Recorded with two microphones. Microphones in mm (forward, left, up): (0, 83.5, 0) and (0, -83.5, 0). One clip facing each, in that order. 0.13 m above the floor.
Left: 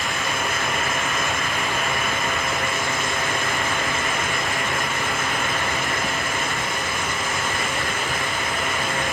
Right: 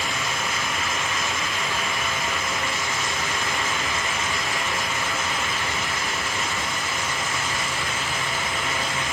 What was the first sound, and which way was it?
Only background noise.